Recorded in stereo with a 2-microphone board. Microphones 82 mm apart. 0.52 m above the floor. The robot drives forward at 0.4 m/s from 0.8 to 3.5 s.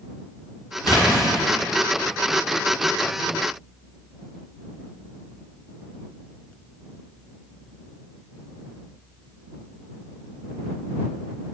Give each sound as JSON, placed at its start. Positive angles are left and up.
{"t": 0.8, "sound": "a splash", "side_deg": 50, "distance_m": 2.0}